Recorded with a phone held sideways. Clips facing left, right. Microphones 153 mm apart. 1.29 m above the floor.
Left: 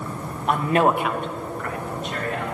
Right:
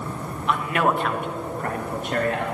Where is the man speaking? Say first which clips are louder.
Left 3 dB; 45° left (ahead or behind), 1.4 m; by 2.5 s 60° right (ahead or behind), 2 m.